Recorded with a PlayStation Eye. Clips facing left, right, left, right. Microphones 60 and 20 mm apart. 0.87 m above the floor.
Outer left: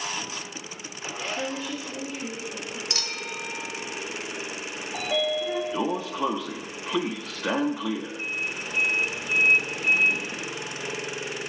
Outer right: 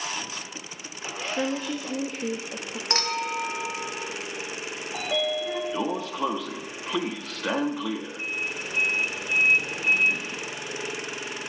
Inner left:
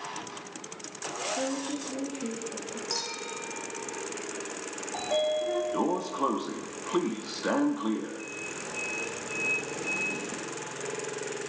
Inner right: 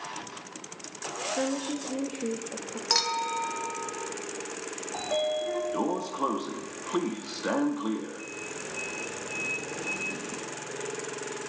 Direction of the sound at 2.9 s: 40° right (ahead or behind).